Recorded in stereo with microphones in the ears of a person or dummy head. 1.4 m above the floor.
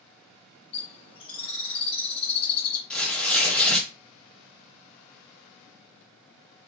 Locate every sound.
0.7 s a bird: 35° left (ahead or behind), 1.3 m
2.9 s tearing paper: 5° left (ahead or behind), 0.7 m